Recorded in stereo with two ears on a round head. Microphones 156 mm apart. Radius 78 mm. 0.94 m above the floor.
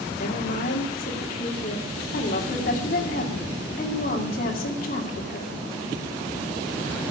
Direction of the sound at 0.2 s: 55° left (ahead or behind).